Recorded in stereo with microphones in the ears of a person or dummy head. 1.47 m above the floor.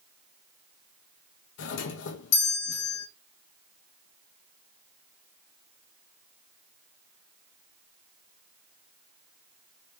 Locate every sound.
1.6 s a doorbell: 65° left (ahead or behind), 0.9 m